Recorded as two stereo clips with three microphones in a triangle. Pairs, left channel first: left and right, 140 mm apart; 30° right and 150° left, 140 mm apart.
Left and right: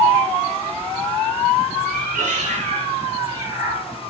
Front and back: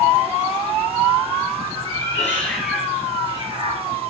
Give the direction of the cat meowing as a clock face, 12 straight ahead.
3 o'clock.